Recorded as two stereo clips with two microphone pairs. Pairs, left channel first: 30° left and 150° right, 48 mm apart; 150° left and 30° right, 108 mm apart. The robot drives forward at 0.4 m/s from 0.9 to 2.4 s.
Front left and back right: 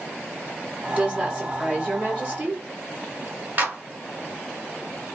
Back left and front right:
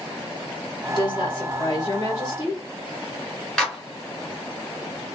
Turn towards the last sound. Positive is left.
turn(degrees=-130)